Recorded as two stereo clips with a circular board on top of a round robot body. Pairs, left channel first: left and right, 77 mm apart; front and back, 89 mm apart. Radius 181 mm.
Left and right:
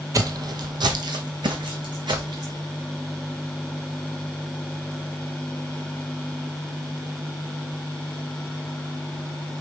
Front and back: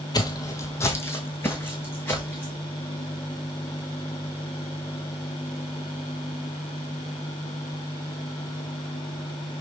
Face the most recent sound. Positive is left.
turn(degrees=-70)